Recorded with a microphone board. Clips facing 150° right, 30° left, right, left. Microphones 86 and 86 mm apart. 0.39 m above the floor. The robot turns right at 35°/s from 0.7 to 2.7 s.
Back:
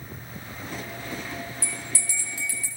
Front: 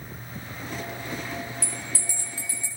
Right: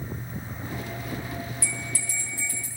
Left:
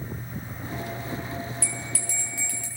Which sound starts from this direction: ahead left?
A bell, at 1.6 s.